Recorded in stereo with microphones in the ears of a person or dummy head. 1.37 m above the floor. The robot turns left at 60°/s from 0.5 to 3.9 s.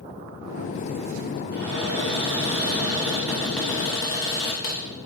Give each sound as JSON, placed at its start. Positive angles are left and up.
{"t": 1.5, "sound": "a cupboard door", "azimuth_deg": -65, "distance_m": 0.9}